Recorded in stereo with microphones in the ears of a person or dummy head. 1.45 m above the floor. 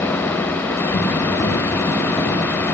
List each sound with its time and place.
0.9 s running footsteps: 20° left (ahead or behind), 3 m; by 2.6 s 15° left (ahead or behind), 4 m